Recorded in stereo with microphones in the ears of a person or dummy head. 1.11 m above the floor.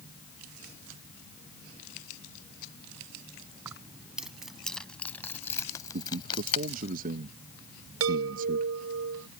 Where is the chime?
85° right.